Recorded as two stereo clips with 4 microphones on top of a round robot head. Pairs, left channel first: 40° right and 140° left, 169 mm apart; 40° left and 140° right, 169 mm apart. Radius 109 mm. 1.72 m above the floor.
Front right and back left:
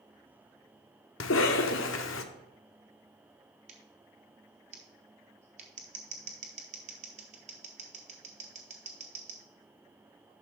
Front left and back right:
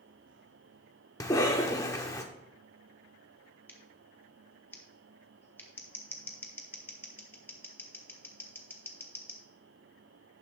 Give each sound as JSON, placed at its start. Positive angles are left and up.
{"t": 1.2, "sound": "a cough", "azimuth_deg": -30, "distance_m": 0.7}
{"t": 3.7, "sound": "scissors", "azimuth_deg": 110, "distance_m": 0.6}